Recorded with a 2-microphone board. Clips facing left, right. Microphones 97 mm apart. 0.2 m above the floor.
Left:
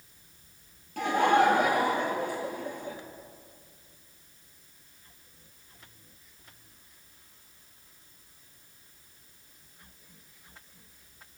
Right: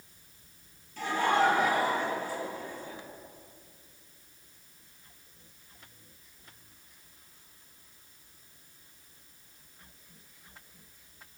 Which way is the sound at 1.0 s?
70° left (ahead or behind).